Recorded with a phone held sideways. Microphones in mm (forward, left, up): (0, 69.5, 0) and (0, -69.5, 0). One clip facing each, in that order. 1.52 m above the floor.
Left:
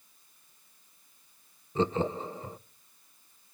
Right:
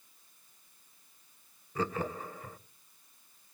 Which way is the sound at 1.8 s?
25° left (ahead or behind).